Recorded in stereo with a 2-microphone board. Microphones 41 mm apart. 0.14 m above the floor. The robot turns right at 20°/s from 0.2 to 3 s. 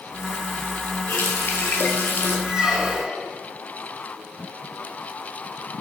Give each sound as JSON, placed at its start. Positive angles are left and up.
{"t": 1.1, "sound": "a running tap", "side_deg": 65, "distance_m": 1.8}
{"t": 2.5, "sound": "a squeak", "side_deg": -15, "distance_m": 4.5}